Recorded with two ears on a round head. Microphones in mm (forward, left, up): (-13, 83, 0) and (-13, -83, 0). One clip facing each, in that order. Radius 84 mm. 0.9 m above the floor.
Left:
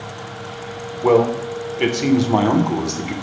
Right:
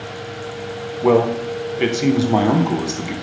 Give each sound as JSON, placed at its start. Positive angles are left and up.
{"t": 1.0, "sound": "a man speaking", "side_deg": -5, "distance_m": 0.6}